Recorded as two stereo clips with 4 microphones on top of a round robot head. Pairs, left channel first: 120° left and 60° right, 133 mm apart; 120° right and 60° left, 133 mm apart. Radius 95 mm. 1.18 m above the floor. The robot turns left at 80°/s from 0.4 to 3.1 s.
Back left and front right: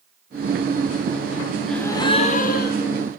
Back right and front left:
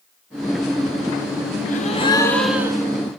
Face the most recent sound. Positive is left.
turn(degrees=95)